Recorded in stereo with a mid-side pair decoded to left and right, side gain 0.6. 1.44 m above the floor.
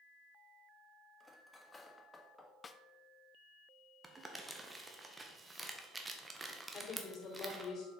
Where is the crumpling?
20° right, 1.5 m.